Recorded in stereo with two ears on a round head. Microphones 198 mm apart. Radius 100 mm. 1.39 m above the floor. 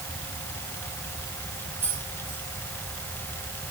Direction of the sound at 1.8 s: 10° right (ahead or behind).